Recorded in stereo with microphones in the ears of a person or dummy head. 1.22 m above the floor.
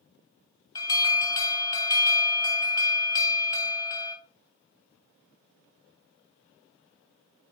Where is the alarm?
20° left (ahead or behind), 2.5 m.